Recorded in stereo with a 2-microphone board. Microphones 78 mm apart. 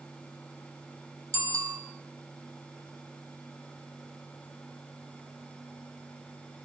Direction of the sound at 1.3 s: 45° right (ahead or behind).